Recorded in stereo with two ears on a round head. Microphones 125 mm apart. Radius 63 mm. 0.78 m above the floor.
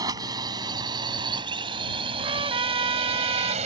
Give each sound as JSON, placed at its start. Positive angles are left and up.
{"t": 0.0, "sound": "a drone", "side_deg": -25}
{"t": 2.2, "sound": "a trumpet", "side_deg": -35}